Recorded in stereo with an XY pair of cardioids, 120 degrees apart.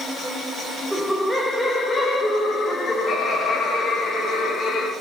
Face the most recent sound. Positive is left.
turn(degrees=55)